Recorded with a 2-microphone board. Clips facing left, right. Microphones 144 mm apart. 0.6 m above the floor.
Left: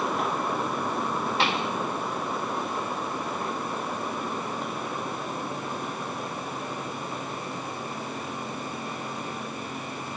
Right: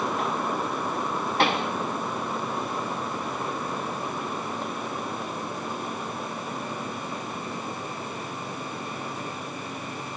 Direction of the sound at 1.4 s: 55° right (ahead or behind).